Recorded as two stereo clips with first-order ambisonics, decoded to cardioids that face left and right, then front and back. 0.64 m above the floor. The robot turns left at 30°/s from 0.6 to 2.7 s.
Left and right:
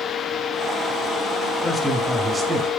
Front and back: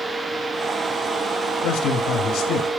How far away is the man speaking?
About 1.7 m.